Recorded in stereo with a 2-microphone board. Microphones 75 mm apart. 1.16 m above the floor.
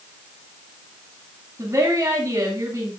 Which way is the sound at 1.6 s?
40° right (ahead or behind).